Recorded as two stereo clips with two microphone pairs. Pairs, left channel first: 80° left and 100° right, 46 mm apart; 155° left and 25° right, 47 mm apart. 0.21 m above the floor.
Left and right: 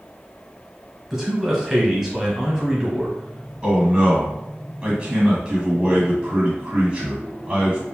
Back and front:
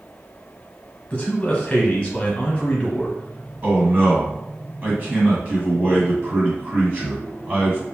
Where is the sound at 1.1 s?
175° right, 1.2 m.